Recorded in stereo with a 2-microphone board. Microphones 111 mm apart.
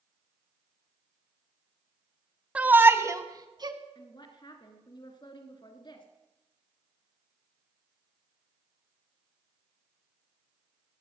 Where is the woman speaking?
45° left (ahead or behind), 2.5 m.